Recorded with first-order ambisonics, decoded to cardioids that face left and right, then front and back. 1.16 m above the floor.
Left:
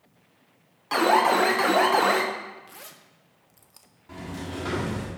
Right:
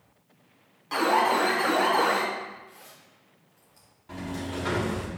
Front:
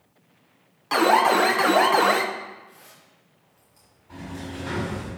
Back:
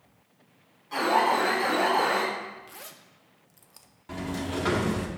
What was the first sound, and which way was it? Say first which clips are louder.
An alarm: left 3 dB, front 5 dB; 25° left.